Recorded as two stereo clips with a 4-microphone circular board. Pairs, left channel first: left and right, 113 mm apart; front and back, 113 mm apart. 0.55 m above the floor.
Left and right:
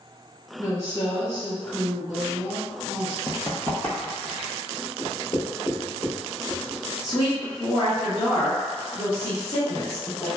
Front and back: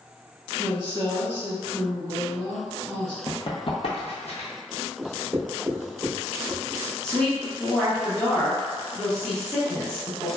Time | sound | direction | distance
0.6 | a woman speaking | 140° left | 1.6 m
3.3 | running footsteps | 50° left | 0.7 m
5.0 | writing | 125° left | 1.1 m
7.0 | a woman speaking | 85° left | 0.8 m